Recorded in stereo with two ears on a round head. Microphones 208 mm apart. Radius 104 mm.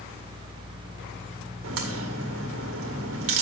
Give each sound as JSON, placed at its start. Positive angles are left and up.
{"t": 1.6, "sound": "a crack", "side_deg": -60, "distance_m": 2.0}